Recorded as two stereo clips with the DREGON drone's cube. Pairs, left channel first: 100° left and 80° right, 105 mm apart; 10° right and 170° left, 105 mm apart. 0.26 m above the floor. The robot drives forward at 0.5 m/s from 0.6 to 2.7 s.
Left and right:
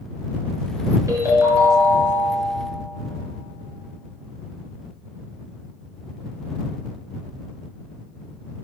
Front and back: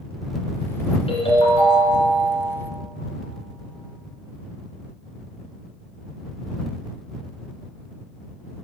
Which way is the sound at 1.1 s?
15° right.